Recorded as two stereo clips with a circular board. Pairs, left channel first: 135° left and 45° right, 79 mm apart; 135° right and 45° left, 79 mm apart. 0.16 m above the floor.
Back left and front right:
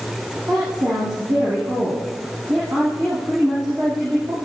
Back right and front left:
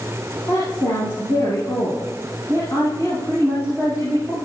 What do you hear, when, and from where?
0.5 s a woman speaking: 85° right, 6.5 m